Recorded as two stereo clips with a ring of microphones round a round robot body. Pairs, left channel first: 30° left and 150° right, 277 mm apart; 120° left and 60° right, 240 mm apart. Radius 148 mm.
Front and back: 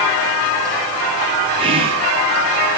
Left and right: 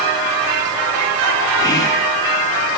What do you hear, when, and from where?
1.6 s whispering: 175° left, 1.0 m